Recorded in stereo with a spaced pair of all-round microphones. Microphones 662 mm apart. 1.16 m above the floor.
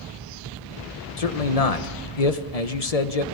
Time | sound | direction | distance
1.2 | a man speaking | 65° left (ahead or behind) | 1.3 m